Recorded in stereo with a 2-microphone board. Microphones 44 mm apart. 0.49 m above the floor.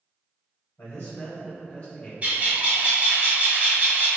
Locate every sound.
0.8 s a man speaking: 55° left (ahead or behind), 1.5 m; by 2.1 s 20° left (ahead or behind), 0.8 m
2.2 s a bird: 35° right (ahead or behind), 1.3 m